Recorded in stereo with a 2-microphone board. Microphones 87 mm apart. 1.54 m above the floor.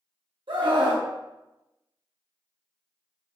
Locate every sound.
0.5 s a scream: 70° right (ahead or behind), 1.0 m